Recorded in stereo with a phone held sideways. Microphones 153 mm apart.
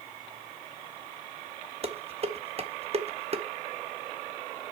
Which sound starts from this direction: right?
Dishes clattering, at 1.8 s.